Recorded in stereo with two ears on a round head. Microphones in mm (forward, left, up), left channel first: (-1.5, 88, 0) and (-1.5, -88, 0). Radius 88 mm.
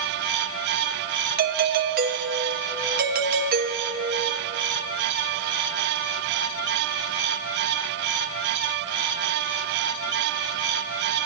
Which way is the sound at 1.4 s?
50° right (ahead or behind).